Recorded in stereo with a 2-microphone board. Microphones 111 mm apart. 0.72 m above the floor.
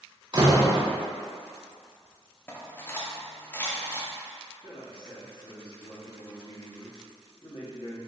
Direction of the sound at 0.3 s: 40° right (ahead or behind).